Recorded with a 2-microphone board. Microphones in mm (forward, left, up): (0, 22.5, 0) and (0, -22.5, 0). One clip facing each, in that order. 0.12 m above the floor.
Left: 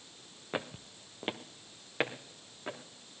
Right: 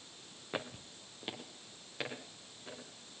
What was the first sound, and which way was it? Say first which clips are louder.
Footsteps: left 3 dB; 10° left (ahead or behind).